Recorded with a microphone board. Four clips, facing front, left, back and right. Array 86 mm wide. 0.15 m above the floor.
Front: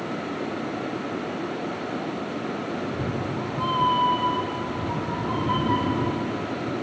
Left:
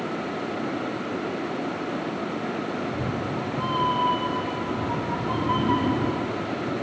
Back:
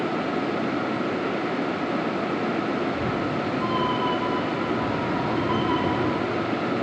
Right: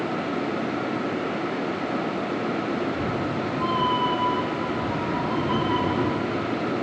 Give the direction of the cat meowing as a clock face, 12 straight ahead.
11 o'clock.